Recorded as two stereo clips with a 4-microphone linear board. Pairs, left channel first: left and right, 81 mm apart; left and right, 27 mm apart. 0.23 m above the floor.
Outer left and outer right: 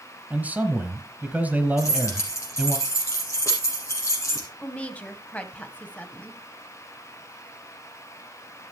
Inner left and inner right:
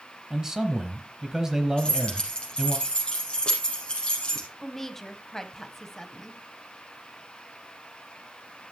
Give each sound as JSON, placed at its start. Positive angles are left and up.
{"t": 0.3, "sound": "a man speaking", "side_deg": -20, "distance_m": 1.4}
{"t": 1.8, "sound": "keys jangling", "side_deg": 40, "distance_m": 4.5}
{"t": 4.6, "sound": "a woman speaking", "side_deg": 20, "distance_m": 1.2}